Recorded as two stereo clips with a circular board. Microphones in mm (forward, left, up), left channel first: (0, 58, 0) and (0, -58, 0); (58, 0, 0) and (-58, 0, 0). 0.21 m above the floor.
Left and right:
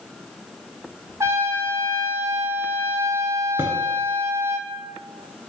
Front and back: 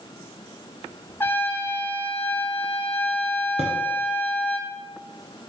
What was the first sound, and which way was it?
A trumpet, 50° right.